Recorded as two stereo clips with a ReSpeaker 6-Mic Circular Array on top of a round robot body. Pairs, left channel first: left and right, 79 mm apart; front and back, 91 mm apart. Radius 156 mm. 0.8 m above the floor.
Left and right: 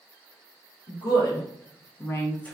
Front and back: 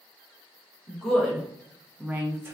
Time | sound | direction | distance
0.9 | a woman speaking | 85° left | 1.1 m